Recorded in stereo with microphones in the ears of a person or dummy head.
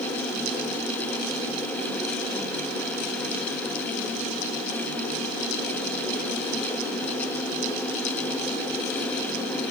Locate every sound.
Only background noise.